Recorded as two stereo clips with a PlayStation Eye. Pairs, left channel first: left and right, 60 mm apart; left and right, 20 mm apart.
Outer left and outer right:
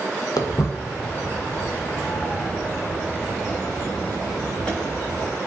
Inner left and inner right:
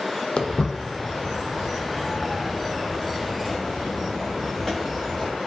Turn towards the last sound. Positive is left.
turn(degrees=20)  # may be behind; listen again after turning